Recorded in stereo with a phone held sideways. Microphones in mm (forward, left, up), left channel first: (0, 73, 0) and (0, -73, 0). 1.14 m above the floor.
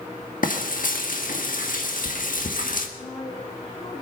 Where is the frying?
70° left (ahead or behind), 1.6 m.